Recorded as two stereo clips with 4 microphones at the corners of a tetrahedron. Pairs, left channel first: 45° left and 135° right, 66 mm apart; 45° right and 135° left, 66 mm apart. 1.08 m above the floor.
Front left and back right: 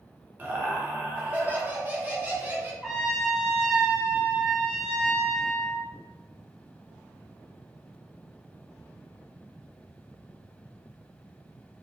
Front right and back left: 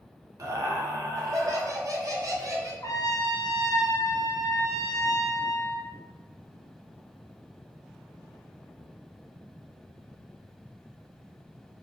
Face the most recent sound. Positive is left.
turn(degrees=-50)